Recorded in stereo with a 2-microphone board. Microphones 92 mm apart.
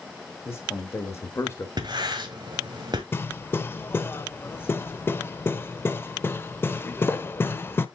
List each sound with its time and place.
0.5 s a man speaking: 25° left (ahead or behind), 2 m
1.8 s writing: 50° right (ahead or behind), 1.5 m
3.1 s hammering: 25° left (ahead or behind), 0.6 m